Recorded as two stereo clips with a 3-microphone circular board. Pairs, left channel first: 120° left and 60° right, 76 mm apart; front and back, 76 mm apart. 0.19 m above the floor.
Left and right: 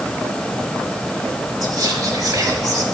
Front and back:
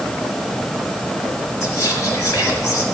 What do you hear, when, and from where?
1.6 s whispering: 45° right, 3.5 m